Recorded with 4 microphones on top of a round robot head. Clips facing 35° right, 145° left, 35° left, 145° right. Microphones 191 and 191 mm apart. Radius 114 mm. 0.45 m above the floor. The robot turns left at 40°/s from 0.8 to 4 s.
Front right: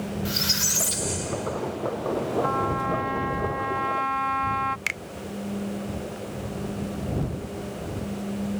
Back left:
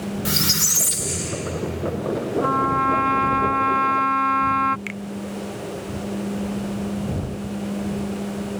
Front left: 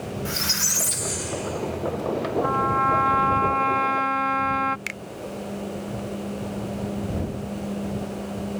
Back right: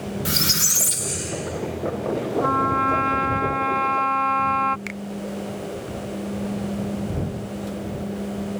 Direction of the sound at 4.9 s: 15° right.